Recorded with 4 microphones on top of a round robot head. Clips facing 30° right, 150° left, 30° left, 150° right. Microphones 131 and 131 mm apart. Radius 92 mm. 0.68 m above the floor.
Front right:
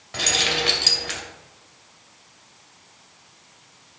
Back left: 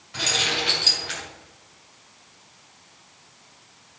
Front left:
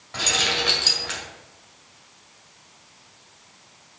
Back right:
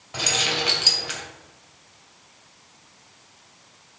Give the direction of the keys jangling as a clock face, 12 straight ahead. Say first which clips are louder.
Front right 2 dB, even; 2 o'clock.